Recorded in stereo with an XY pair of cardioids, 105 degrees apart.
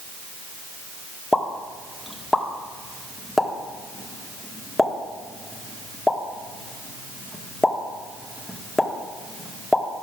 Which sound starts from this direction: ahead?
A pop, at 1.3 s.